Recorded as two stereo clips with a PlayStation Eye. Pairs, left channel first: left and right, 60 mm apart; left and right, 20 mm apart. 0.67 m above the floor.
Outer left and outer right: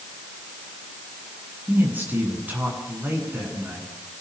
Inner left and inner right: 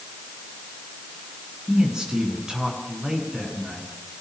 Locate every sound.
1.7 s a man speaking: 30° right (ahead or behind), 9 m